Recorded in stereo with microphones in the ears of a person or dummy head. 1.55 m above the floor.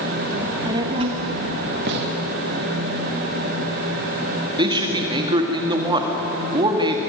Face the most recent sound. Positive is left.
turn(degrees=-25)  # may be behind; listen again after turning